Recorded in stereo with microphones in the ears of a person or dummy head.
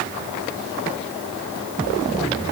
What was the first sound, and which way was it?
Only background noise.